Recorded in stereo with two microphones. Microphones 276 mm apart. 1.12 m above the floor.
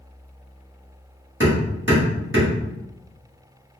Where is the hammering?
45° right (ahead or behind), 1.2 m.